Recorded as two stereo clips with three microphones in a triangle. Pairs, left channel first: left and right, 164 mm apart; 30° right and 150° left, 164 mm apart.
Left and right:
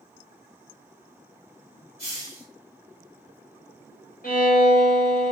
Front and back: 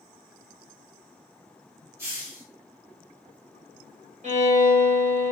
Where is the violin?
110° left, 1.1 m.